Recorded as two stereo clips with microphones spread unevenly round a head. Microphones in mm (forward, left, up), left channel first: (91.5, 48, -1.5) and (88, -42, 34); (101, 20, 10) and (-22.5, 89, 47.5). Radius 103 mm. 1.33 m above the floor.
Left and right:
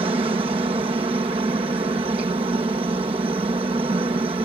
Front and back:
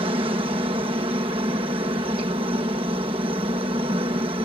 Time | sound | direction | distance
0.0 | a helicopter | 145° right | ?